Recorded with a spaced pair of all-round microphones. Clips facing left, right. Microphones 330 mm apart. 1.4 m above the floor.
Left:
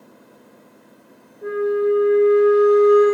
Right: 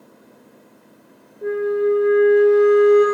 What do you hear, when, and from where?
1.4 s a flute: 45° right (ahead or behind), 3 m